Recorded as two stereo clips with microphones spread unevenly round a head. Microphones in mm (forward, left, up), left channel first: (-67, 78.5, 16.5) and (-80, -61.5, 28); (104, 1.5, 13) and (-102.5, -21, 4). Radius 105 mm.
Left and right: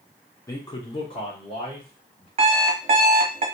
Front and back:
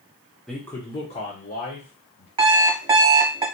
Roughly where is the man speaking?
Left.